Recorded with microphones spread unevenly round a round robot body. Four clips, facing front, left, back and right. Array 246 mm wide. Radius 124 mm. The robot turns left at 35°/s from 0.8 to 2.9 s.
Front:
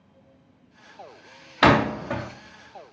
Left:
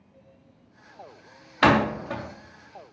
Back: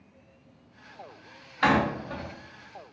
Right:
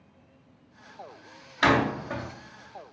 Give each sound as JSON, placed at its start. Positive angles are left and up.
{"t": 1.6, "sound": "a door slam", "azimuth_deg": 25, "distance_m": 0.5}